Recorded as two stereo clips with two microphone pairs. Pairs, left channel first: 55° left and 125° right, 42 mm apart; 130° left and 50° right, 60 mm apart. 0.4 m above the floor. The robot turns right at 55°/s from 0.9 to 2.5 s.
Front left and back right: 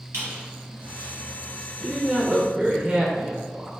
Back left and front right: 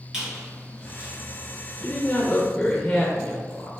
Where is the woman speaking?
155° left, 0.9 m; by 3.7 s 165° right, 0.9 m.